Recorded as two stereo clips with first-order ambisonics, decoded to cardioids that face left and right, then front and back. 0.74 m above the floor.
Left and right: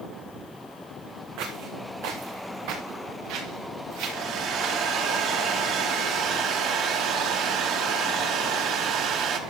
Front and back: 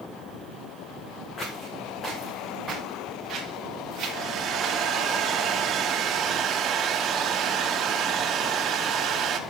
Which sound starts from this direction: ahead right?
Footsteps, at 1.4 s.